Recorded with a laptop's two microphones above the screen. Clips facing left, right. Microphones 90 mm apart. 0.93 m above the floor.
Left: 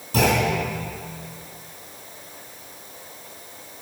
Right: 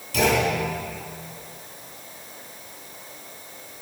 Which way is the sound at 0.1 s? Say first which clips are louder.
Left 1 dB; 35° left (ahead or behind).